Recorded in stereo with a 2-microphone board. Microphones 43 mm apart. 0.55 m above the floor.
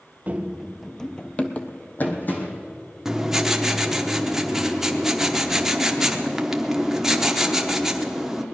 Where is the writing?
10° right (ahead or behind), 0.9 m.